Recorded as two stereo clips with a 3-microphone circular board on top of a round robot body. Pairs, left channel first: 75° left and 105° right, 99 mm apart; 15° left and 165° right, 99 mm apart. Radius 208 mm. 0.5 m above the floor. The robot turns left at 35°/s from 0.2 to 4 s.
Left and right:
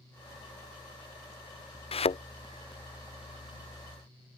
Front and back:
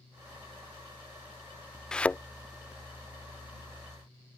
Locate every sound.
1.9 s a thud: 100° left; by 2.2 s 90° left